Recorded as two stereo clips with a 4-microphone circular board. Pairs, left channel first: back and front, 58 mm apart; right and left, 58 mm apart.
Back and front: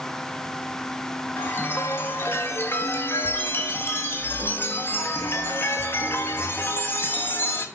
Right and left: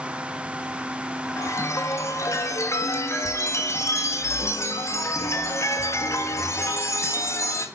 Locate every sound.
1.4 s a chime: 130° right, 1.5 m